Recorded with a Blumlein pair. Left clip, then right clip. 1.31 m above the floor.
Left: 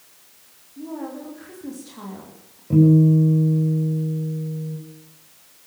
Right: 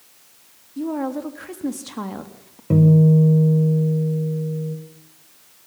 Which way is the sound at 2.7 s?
30° right.